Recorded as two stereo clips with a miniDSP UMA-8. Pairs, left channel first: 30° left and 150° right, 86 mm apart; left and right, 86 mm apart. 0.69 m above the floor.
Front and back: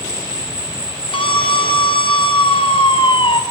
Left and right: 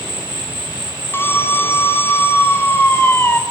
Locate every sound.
0.0 s an insect: 105° right, 1.2 m
1.1 s a scream: 30° left, 4.5 m